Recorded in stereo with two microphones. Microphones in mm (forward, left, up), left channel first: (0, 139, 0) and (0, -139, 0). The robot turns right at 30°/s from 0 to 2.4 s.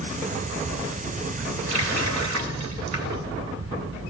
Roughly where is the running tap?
Right.